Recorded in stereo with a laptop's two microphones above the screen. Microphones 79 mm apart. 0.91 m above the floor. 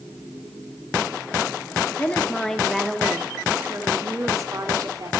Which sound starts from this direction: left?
A woman speaking, at 2.0 s.